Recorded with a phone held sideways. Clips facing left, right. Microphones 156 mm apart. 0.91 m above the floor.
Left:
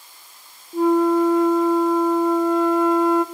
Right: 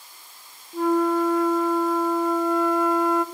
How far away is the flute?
About 1.3 m.